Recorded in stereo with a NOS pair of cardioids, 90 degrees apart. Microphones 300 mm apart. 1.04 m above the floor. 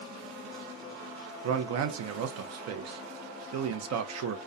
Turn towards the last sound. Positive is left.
turn(degrees=-70)